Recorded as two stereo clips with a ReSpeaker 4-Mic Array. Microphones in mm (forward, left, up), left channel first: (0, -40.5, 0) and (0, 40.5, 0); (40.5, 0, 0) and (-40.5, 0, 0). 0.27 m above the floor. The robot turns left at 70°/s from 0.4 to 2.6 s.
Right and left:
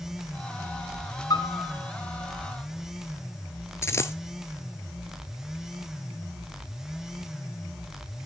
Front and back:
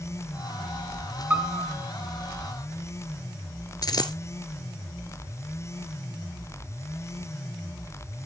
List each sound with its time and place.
1.3 s a piano: 110° right, 1.5 m; by 1.8 s 140° right, 1.5 m
3.8 s a dropped coin: 35° right, 0.9 m